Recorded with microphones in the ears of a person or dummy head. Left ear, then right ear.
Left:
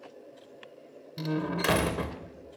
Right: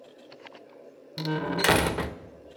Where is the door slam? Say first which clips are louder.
Right 4 dB; 25° right (ahead or behind), 0.6 m.